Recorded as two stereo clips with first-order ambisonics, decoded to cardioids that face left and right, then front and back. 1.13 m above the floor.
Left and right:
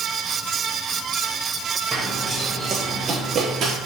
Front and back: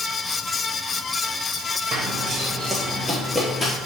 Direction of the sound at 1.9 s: 175° right.